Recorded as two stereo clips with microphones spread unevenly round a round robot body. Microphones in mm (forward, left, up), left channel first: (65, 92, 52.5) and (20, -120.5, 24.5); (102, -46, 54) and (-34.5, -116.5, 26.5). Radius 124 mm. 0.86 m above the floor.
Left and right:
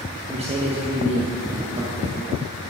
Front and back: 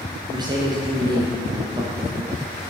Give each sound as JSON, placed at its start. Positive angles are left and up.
{"t": 0.3, "sound": "a man speaking", "azimuth_deg": -130, "distance_m": 1.1}